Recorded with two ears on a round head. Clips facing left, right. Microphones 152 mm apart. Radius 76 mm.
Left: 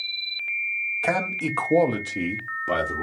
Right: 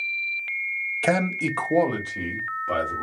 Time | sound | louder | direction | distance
1.0 | a man speaking | right 3 dB | 35° right (ahead or behind) | 0.5 m